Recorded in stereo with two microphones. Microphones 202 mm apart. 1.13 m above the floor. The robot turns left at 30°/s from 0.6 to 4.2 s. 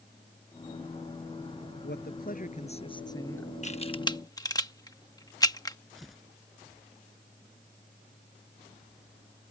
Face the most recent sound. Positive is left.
turn(degrees=0)  # may be behind; listen again after turning